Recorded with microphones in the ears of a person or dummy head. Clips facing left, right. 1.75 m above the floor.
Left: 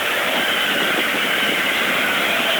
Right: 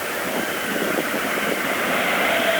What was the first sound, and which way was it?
Only background noise.